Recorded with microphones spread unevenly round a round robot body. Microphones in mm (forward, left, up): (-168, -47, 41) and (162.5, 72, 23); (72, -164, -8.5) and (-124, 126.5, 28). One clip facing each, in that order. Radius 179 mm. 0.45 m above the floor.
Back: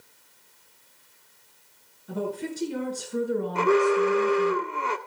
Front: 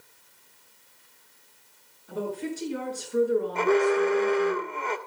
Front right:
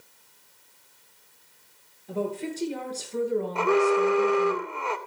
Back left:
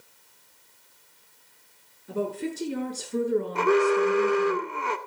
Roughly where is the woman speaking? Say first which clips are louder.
Back 1 dB, even; behind.